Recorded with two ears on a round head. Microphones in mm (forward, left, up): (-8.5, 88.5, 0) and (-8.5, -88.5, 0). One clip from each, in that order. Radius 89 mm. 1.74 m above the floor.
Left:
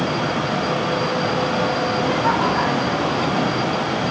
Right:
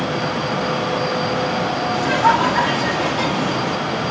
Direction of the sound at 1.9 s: 80° right.